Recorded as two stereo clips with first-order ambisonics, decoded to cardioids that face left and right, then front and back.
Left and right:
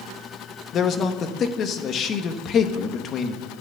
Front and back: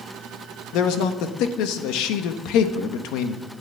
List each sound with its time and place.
0.7 s a man speaking: 30° left, 1.4 m